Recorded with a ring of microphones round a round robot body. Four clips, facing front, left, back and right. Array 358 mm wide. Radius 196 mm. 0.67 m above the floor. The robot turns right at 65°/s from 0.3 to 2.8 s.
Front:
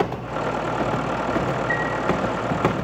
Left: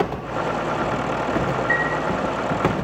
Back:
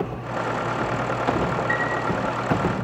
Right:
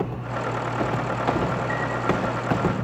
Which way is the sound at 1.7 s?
100° left.